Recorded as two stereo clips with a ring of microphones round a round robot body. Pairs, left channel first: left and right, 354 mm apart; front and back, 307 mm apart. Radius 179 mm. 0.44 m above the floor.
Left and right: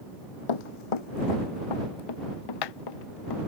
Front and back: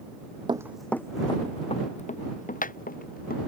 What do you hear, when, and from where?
0.5 s running footsteps: 105° left; by 3.4 s 60° left